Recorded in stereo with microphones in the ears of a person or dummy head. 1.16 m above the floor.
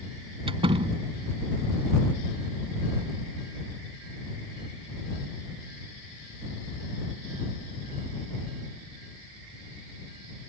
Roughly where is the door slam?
Right.